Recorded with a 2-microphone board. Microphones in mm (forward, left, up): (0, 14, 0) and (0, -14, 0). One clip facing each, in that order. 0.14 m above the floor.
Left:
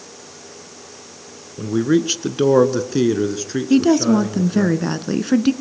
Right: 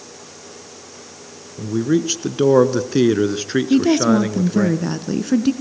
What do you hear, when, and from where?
1.6 s a man speaking: 25° left (ahead or behind), 1.4 m; by 4.7 s 50° right (ahead or behind), 1.8 m
3.7 s a woman speaking: 15° left (ahead or behind), 1.2 m